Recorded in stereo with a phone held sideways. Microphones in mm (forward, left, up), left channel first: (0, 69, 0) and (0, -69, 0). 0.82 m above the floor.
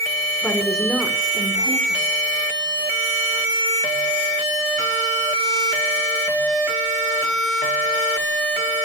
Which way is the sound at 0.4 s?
10° left (ahead or behind).